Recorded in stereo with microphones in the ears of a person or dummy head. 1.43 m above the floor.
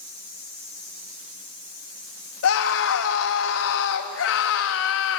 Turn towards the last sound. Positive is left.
turn(degrees=75)  # may be behind; listen again after turning